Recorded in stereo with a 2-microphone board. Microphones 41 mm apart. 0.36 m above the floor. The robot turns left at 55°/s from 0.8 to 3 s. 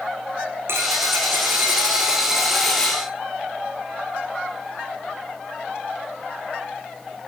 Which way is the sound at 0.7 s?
90° right.